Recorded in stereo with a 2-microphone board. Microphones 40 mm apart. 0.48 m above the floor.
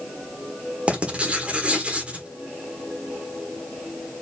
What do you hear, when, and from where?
0.9 s writing: 30° right (ahead or behind), 1.4 m